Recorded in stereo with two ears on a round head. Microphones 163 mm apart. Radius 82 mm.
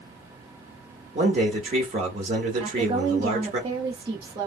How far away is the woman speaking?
About 1.0 m.